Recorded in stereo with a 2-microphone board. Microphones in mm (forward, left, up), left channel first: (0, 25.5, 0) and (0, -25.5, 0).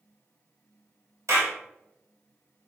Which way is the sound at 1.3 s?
85° right.